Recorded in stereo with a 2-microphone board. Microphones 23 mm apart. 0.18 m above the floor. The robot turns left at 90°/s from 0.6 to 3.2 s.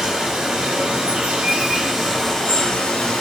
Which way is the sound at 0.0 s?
40° right.